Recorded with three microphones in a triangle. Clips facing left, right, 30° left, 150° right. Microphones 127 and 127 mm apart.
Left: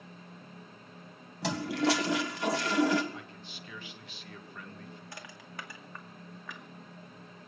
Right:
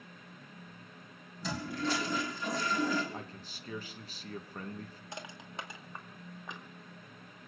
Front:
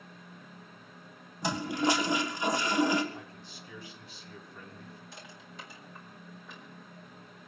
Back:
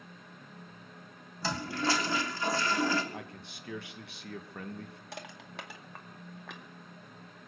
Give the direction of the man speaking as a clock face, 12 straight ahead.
5 o'clock.